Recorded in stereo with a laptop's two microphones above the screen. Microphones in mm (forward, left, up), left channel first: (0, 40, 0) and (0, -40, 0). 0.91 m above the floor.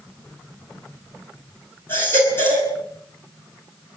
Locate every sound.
1.9 s a baby crying: 30° left (ahead or behind), 9.5 m